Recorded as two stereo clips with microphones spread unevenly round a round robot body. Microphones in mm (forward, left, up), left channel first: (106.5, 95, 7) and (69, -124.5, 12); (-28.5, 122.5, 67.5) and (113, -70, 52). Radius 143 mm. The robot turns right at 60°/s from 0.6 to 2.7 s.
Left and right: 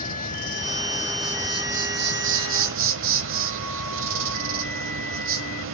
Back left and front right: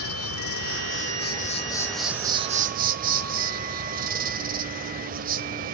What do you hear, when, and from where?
0.0 s an insect: 135° left, 1.3 m; by 5.7 s 100° right, 1.3 m